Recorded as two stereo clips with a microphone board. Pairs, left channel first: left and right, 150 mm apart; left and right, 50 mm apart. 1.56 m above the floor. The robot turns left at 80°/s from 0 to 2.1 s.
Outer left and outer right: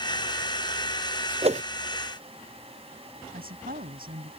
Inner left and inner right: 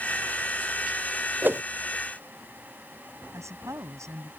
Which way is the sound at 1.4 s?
40° right (ahead or behind).